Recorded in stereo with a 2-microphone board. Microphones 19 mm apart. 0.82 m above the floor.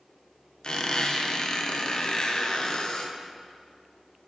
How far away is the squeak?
About 0.6 m.